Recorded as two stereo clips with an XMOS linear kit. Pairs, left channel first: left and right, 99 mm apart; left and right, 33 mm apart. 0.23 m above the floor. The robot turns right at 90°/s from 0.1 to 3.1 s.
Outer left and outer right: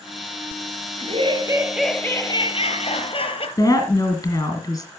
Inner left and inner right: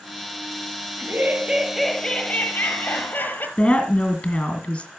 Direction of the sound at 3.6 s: 40° left (ahead or behind).